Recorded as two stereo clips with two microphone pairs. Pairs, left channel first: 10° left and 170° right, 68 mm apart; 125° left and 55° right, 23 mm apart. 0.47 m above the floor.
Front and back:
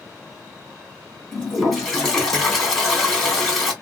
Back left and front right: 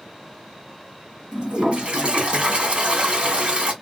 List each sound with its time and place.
1.3 s a toilet flushing: 75° right, 1.8 m